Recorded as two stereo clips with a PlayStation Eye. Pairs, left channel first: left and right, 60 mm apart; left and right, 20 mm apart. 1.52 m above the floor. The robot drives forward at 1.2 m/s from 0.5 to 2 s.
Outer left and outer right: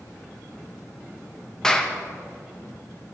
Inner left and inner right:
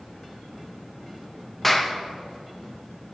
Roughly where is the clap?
Centre.